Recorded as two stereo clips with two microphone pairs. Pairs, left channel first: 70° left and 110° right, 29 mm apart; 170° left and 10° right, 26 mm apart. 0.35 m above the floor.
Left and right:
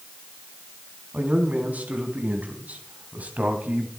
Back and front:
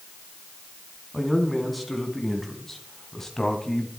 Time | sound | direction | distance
1.1 | a man speaking | 100° right | 4 m